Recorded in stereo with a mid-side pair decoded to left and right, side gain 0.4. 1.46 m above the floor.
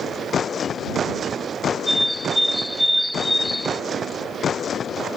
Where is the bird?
5° left.